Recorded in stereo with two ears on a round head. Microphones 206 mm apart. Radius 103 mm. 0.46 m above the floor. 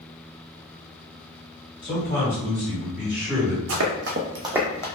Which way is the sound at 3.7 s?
65° right (ahead or behind).